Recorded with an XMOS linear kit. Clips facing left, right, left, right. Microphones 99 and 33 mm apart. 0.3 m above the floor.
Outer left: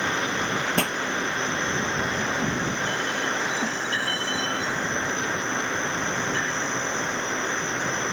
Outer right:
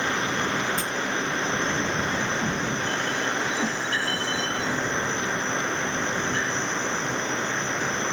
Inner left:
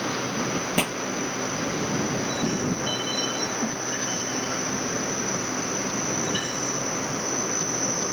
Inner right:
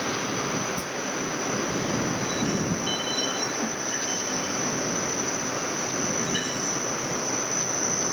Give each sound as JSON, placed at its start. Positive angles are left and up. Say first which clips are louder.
{"t": 0.8, "sound": "a pop", "louder": "outer left 4 dB, inner left 7 dB", "side_deg": 70}